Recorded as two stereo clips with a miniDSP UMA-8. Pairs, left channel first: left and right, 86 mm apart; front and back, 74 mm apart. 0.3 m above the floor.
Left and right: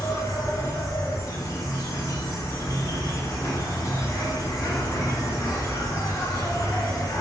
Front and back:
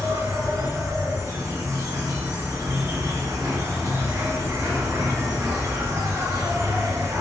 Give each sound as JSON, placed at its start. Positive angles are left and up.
{"t": 0.0, "sound": "an insect", "azimuth_deg": 135, "distance_m": 0.7}